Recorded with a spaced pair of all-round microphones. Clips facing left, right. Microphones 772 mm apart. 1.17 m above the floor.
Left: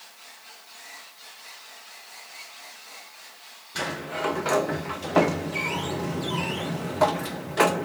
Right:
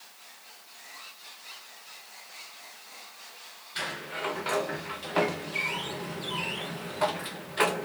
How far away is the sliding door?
About 1.1 m.